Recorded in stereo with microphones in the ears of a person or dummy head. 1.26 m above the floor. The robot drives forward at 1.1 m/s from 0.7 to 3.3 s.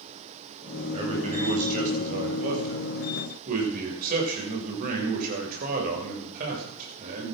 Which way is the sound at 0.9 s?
35° right (ahead or behind).